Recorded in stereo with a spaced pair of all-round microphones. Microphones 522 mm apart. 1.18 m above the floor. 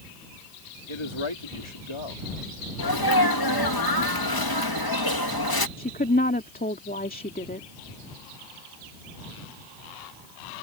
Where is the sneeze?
45° left (ahead or behind).